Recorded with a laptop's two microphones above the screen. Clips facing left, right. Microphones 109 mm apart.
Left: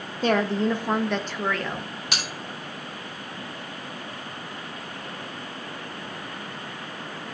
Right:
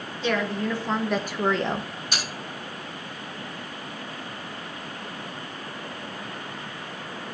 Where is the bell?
80° left, 4 m.